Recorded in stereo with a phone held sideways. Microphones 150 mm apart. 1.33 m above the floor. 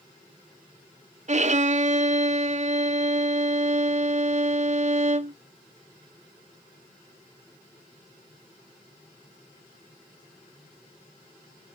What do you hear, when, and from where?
1.3 s a violin: 50° right (ahead or behind), 0.5 m